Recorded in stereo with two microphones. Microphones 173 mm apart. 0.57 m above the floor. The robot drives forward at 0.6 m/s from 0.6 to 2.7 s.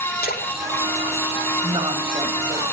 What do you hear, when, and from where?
0.2 s a splash: 60° left (ahead or behind), 1.6 m; by 2.3 s 55° left (ahead or behind), 1.8 m
1.6 s a woman speaking: 35° right (ahead or behind), 3 m; by 2.6 s 30° right (ahead or behind), 3.5 m